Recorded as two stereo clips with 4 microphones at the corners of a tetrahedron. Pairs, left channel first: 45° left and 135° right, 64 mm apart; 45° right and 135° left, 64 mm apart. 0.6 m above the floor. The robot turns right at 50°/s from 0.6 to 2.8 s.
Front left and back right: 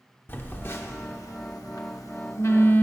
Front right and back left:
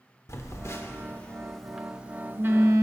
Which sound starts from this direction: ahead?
A phone buzzing, at 0.3 s.